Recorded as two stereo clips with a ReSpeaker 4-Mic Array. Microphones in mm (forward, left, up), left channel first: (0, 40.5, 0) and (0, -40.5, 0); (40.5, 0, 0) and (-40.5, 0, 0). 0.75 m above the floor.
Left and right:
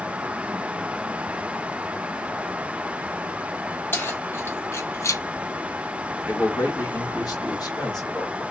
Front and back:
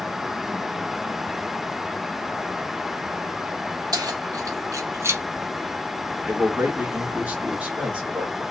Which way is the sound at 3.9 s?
150° left.